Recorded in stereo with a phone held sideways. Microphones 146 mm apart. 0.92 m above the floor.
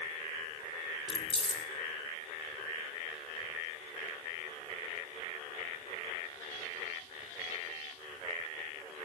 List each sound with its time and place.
1.1 s keys jangling: 40° left (ahead or behind), 1.6 m